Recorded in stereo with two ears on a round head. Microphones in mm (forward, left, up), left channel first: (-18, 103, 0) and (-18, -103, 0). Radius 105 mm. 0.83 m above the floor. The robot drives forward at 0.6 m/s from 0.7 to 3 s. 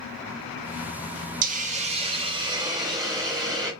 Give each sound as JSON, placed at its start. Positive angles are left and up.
{"t": 1.4, "sound": "a hiss", "side_deg": -40, "distance_m": 0.7}